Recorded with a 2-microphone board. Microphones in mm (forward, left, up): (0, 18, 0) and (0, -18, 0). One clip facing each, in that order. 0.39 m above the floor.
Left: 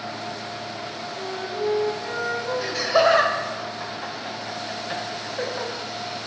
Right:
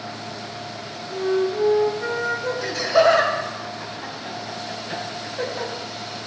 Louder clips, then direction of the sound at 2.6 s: Right 2 dB; 10° left (ahead or behind).